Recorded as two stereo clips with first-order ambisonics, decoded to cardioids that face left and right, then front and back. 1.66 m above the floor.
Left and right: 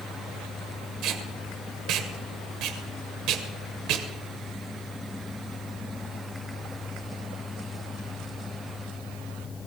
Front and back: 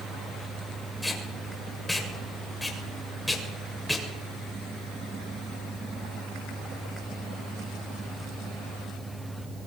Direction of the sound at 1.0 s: 85° right.